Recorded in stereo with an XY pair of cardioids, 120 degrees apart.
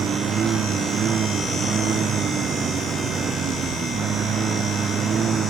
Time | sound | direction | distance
0.0 | a lawn mower | 45° right | ?